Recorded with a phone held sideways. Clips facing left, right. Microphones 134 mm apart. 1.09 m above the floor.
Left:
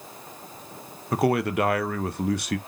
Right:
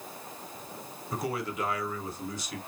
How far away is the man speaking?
About 0.5 m.